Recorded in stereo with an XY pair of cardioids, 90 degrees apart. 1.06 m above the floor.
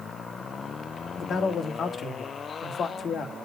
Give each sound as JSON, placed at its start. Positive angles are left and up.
{"t": 1.2, "sound": "a man speaking", "azimuth_deg": 65, "distance_m": 1.8}